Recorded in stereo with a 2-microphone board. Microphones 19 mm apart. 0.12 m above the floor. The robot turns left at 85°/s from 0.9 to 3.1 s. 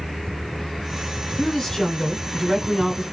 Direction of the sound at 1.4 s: 25° left (ahead or behind).